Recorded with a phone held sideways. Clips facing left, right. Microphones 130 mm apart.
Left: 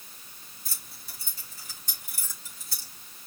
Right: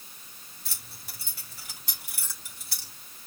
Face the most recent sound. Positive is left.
turn(degrees=-65)  # may be behind; listen again after turning